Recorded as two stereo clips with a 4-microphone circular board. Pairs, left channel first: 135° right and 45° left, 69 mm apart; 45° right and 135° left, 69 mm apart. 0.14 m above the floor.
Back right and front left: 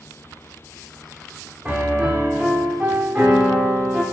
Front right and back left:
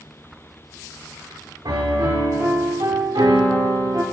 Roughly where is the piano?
Behind left.